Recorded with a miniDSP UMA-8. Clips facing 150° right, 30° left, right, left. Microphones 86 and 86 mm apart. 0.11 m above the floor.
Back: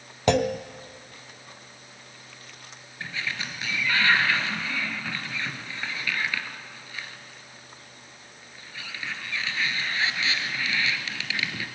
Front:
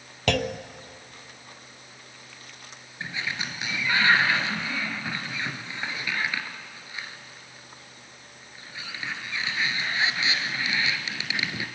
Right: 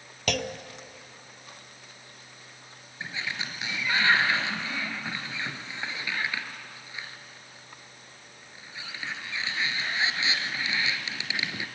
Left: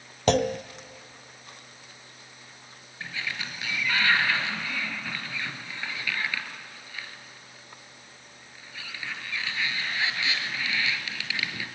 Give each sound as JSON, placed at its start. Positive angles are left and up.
{"t": 0.3, "sound": "a clunk", "azimuth_deg": 145, "distance_m": 0.7}
{"t": 3.0, "sound": "a sliding door", "azimuth_deg": -30, "distance_m": 2.0}